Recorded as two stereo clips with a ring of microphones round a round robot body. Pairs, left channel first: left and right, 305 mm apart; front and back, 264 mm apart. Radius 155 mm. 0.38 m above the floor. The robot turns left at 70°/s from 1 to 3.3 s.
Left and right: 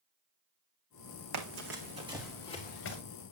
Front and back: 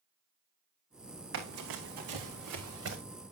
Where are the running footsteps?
125° right, 1.5 m; by 3.0 s 135° left, 2.5 m.